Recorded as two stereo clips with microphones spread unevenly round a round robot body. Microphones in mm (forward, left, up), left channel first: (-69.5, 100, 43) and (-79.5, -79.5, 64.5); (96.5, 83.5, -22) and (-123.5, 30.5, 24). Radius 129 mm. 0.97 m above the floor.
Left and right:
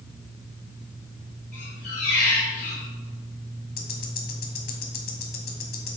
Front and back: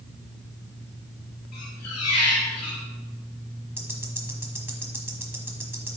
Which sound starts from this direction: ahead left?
A squeak, at 1.5 s.